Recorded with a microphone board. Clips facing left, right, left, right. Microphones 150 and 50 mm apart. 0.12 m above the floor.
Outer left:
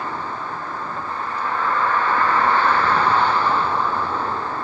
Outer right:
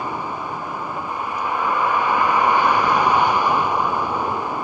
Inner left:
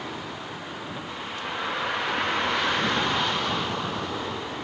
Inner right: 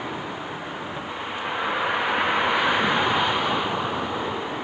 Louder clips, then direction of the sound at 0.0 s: Outer right 1 dB, inner right 4 dB; 10° right (ahead or behind).